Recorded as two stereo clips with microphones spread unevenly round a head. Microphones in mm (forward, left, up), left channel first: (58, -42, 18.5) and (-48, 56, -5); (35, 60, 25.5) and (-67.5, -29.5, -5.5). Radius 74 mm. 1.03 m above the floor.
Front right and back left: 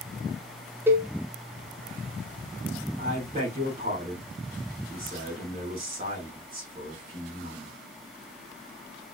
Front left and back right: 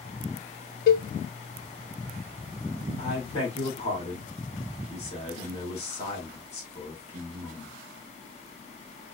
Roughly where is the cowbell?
Ahead left.